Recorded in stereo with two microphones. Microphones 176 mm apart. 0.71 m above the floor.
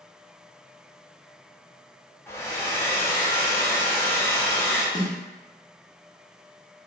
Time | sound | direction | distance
2.3 | a hair dryer | 15° left (ahead or behind) | 0.5 m
5.0 | a snare drum | 20° left (ahead or behind) | 0.9 m